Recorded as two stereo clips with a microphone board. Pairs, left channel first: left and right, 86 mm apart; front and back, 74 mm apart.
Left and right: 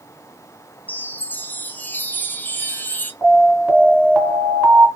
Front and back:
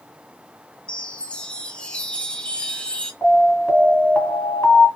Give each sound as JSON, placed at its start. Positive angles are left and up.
{"t": 0.9, "sound": "a chime", "azimuth_deg": 50, "distance_m": 0.6}
{"t": 3.2, "sound": "an alarm", "azimuth_deg": -40, "distance_m": 2.0}